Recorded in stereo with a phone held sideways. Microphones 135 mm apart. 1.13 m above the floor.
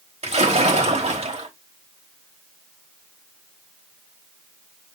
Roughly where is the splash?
Right.